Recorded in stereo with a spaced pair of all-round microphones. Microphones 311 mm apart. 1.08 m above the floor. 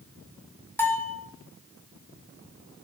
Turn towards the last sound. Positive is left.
turn(degrees=5)  # may be behind; listen again after turning